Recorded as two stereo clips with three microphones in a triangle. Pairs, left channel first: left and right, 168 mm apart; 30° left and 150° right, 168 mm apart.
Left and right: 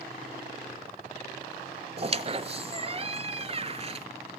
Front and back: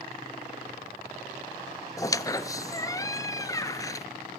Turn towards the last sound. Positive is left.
turn(degrees=-40)